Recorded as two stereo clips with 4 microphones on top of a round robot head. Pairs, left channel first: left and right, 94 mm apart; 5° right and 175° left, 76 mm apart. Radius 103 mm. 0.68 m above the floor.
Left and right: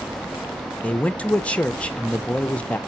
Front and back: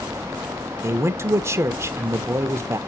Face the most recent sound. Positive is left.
turn(degrees=160)